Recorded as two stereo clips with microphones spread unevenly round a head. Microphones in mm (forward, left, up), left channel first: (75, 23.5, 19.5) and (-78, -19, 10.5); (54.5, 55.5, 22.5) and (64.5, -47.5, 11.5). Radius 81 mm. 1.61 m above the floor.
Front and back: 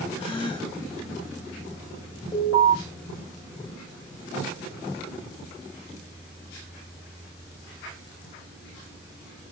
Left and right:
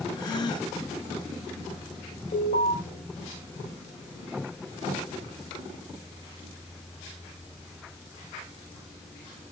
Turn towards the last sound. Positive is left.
turn(degrees=85)